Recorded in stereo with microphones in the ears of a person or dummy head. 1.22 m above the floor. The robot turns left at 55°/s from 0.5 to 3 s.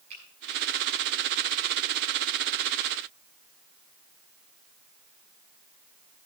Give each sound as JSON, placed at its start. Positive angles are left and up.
{"t": 0.1, "sound": "a finger snap", "side_deg": -35, "distance_m": 8.0}